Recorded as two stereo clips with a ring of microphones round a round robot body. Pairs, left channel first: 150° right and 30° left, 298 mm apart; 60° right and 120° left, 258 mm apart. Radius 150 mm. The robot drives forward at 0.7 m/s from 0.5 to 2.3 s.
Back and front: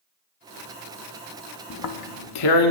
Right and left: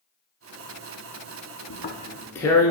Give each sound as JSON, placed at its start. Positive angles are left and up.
{"t": 1.7, "sound": "tearing paper", "azimuth_deg": -110, "distance_m": 0.5}